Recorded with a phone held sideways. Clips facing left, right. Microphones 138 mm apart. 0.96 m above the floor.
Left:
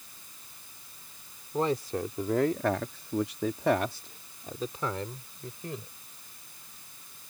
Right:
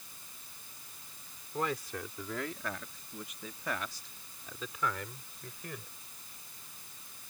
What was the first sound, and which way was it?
A man speaking, 30° left (ahead or behind).